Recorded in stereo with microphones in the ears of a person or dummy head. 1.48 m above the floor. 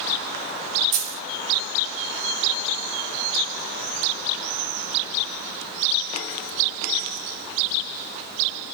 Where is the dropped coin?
60° right (ahead or behind), 3.5 m.